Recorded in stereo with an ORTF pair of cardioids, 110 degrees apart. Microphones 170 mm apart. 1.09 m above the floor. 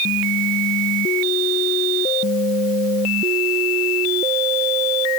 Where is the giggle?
No giggle in this recording.